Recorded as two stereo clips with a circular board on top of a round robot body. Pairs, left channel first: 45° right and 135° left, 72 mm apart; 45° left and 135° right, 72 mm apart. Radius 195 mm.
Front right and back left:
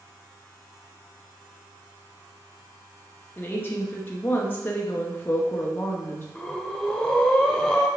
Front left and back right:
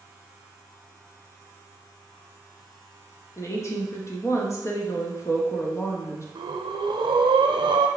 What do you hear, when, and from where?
3.4 s a woman speaking: 10° left, 1.8 m
6.3 s breathing: 130° right, 0.8 m